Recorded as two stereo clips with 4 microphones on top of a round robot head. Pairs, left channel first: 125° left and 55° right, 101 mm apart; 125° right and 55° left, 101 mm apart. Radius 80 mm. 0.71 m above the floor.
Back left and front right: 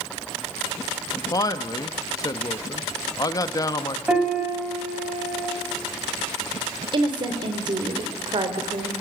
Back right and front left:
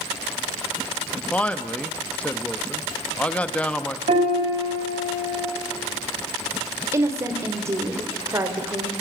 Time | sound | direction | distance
1.1 | a man speaking | 160° left | 1.5 m
4.1 | a piano | 25° left | 5.5 m
6.9 | a woman speaking | 10° right | 3.5 m